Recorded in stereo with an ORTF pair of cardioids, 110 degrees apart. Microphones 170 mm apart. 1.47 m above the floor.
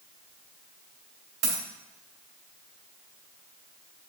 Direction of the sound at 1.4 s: 65° right.